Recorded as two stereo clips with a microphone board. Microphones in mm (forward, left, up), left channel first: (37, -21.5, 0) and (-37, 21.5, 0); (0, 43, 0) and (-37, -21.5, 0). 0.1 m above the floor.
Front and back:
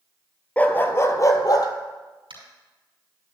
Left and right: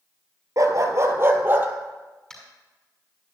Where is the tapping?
145° left, 5.5 m.